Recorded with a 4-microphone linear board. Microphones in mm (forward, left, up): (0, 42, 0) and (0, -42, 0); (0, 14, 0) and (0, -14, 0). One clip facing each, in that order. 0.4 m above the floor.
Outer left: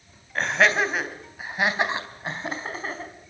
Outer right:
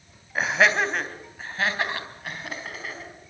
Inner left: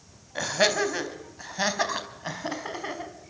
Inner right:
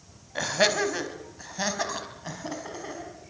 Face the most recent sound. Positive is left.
turn(degrees=40)  # may be behind; listen again after turning